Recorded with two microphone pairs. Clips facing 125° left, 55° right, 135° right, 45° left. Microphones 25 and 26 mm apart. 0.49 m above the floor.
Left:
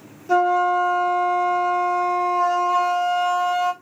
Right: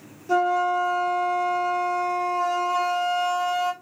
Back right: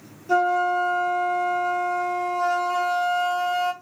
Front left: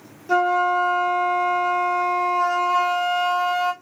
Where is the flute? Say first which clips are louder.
Left 4 dB, front left 2 dB; 55° left, 0.7 m.